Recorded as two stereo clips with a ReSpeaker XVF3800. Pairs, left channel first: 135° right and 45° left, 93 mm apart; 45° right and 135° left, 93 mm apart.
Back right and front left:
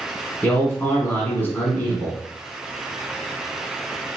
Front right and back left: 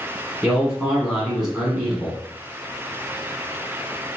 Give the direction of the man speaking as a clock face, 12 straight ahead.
5 o'clock.